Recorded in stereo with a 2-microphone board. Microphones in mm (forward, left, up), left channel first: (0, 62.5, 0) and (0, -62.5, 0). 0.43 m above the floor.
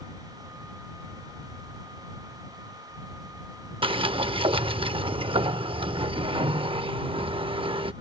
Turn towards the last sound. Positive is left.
turn(degrees=-45)  # may be behind; listen again after turning